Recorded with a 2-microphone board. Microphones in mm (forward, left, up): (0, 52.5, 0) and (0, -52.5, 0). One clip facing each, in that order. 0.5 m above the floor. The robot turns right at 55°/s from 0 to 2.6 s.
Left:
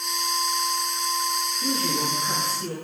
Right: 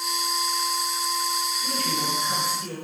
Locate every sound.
1.6 s a man speaking: 75° left, 6 m; by 2.7 s 130° left, 6 m